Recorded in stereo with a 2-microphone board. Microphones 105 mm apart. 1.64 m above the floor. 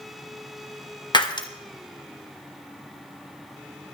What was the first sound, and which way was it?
Breaking glass, 40° left (ahead or behind).